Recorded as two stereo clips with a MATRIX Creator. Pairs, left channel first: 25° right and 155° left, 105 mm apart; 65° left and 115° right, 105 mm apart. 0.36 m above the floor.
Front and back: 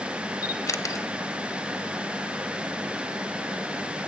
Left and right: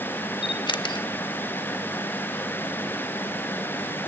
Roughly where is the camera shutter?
Ahead left.